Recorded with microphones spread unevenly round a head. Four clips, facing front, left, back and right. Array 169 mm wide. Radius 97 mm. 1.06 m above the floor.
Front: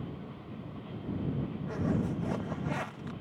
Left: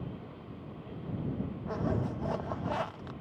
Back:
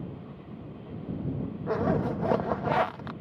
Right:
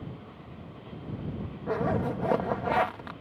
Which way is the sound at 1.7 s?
120° right.